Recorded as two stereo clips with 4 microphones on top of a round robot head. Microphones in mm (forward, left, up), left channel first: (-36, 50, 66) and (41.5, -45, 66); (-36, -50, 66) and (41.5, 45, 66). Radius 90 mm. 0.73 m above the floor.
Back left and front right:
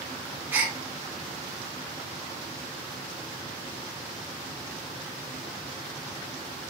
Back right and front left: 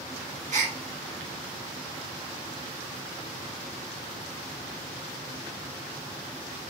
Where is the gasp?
25° left, 2.5 m.